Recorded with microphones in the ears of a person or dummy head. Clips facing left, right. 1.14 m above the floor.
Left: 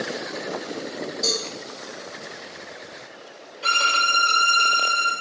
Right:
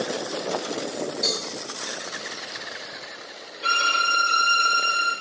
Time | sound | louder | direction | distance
1.2 | a cowbell | left 2 dB | 20° right (ahead or behind) | 4 m
3.6 | a violin | left 1 dB | 15° right (ahead or behind) | 4.5 m